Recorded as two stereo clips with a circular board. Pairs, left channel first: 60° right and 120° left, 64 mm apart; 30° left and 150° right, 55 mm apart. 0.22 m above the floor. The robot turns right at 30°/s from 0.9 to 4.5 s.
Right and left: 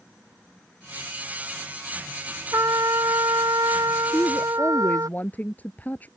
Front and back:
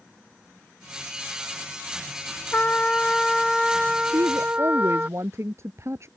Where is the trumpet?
90° left; by 5.1 s 150° left.